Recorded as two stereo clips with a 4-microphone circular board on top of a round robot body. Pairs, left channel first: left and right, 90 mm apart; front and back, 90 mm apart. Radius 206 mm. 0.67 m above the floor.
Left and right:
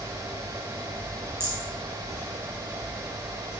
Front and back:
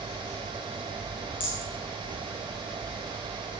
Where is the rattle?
25° right, 4.5 m.